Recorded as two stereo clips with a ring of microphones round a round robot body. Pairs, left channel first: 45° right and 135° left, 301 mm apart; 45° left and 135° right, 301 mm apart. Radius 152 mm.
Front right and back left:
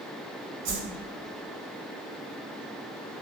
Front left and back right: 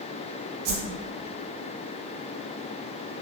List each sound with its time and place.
0.7 s a whoosh: 170° right, 0.7 m